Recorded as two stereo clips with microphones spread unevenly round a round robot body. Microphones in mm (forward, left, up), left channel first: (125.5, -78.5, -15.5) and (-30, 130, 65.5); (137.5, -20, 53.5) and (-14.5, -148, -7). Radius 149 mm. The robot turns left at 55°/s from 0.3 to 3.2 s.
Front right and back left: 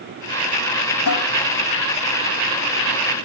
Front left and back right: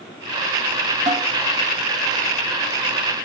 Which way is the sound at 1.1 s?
65° right.